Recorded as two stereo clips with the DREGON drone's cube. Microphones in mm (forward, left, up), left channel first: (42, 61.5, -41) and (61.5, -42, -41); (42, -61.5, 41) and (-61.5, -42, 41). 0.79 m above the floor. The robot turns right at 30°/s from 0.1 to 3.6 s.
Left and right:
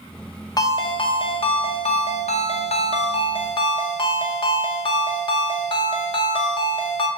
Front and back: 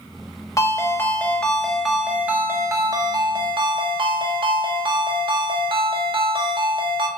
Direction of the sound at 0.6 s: 45° left.